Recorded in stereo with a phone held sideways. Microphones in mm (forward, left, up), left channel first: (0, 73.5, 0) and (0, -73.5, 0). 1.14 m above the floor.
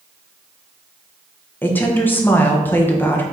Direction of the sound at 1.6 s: 15° left (ahead or behind).